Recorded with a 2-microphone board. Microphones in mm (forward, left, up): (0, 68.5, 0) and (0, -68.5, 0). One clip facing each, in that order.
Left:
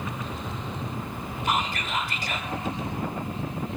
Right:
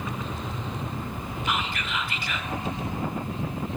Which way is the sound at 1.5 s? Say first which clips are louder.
Left 3 dB; 40° left (ahead or behind).